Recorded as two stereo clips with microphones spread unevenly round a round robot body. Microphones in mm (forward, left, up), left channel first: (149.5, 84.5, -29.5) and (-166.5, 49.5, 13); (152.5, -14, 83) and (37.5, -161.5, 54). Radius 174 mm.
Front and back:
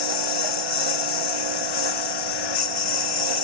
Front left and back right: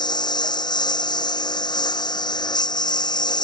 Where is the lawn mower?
15° right.